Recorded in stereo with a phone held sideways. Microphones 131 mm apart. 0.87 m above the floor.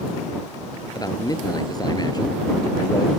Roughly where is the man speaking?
Left.